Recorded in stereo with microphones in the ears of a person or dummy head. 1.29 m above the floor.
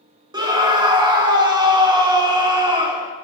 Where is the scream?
25° right (ahead or behind), 0.7 m.